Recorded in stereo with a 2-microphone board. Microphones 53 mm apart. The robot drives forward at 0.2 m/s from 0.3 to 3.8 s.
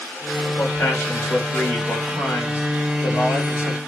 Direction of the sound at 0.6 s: 60° left (ahead or behind).